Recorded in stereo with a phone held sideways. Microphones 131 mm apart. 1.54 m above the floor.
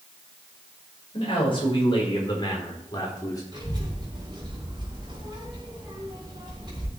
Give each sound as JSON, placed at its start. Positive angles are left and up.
{"t": 1.1, "sound": "a man speaking", "side_deg": 45, "distance_m": 5.0}
{"t": 3.5, "sound": "a child speaking", "side_deg": -35, "distance_m": 3.5}